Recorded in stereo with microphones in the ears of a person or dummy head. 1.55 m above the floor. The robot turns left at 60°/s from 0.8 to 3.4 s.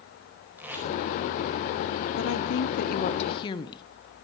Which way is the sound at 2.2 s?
105° left.